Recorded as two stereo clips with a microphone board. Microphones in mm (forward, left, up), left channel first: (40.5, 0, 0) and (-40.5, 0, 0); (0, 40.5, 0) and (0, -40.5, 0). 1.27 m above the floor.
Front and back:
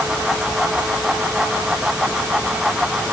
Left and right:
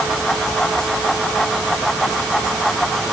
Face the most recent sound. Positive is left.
No sound to turn to.